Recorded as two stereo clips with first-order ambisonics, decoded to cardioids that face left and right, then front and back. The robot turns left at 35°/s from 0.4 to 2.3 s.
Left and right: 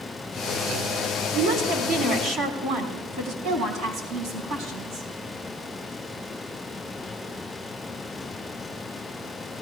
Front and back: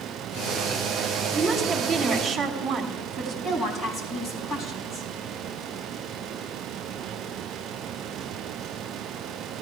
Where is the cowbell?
No cowbell in this recording.